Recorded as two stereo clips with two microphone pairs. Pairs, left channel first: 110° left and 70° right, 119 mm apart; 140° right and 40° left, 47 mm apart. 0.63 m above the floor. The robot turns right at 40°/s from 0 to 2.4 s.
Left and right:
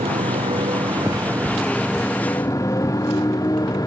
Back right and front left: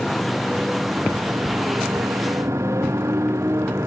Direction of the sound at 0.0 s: 55° right.